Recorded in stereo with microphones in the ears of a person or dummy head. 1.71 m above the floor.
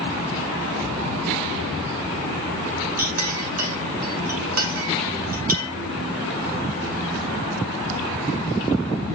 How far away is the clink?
About 1.3 m.